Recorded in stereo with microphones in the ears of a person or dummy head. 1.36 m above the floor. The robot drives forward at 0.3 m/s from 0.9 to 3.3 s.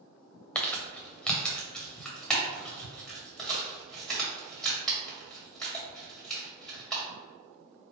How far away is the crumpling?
About 0.6 m.